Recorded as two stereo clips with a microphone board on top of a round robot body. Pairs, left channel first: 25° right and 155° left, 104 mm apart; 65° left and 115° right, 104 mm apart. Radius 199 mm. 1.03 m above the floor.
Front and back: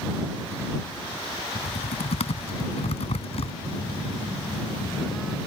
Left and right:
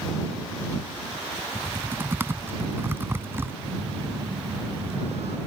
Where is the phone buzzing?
115° right.